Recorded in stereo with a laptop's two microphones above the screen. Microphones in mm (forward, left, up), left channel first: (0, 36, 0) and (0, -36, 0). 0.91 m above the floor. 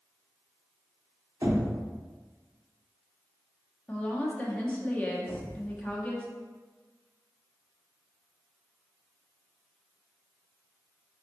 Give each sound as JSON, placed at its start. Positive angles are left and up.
{"t": 1.4, "sound": "knocking", "side_deg": -50, "distance_m": 1.0}
{"t": 3.9, "sound": "a woman speaking", "side_deg": 20, "distance_m": 1.1}
{"t": 5.3, "sound": "an explosion", "side_deg": -20, "distance_m": 0.6}